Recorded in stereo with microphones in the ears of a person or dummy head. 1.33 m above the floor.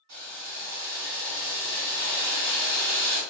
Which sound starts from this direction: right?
Boiling, at 0.1 s.